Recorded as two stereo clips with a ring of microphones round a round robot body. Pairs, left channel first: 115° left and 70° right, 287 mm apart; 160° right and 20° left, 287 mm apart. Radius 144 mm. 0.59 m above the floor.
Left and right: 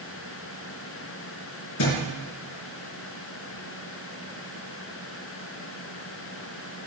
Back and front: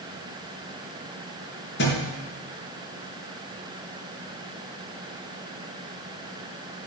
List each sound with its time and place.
1.8 s a thud: 150° left, 4 m